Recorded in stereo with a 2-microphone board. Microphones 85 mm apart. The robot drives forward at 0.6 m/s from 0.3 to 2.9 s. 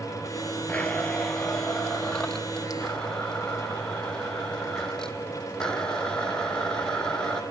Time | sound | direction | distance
0.7 | a blender | 15° left (ahead or behind) | 1.2 m